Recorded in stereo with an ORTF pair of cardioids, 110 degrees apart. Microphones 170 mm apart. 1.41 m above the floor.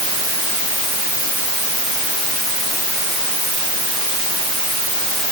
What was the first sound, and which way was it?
Only background noise.